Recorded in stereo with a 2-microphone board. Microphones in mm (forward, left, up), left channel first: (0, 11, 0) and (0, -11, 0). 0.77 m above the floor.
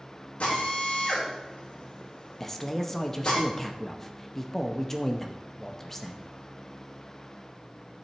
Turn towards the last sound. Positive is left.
turn(degrees=10)  # may be behind; listen again after turning